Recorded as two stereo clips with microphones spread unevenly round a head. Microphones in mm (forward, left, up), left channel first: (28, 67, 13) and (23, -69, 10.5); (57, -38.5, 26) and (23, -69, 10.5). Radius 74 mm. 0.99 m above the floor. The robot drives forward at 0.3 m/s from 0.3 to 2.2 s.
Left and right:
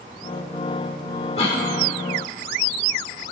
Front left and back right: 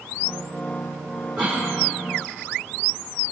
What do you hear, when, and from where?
1.4 s a cough: 140° left, 2.5 m